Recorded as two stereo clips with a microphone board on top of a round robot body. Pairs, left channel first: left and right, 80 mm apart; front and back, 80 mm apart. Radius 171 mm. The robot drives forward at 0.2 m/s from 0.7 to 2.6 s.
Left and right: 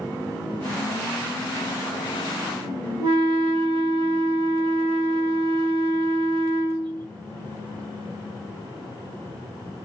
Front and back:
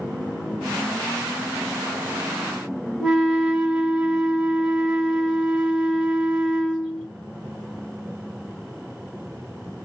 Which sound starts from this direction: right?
A flute, at 3.0 s.